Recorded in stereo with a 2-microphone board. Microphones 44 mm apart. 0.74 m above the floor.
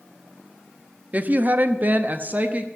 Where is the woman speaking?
40° right (ahead or behind), 0.8 m; by 2.7 s 35° right (ahead or behind), 0.8 m.